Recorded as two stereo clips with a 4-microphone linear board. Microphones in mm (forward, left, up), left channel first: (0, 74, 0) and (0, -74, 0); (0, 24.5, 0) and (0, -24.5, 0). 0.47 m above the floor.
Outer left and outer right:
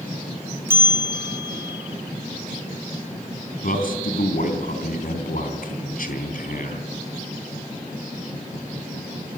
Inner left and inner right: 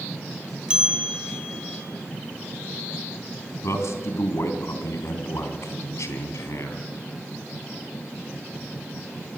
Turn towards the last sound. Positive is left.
turn(degrees=75)  # may be behind; listen again after turning